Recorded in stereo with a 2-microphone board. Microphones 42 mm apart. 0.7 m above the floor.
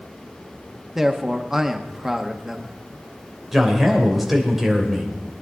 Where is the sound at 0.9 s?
10° right (ahead or behind), 1.2 m.